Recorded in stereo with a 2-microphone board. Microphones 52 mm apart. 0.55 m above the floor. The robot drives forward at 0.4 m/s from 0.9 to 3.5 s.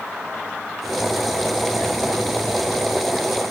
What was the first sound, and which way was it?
Only background noise.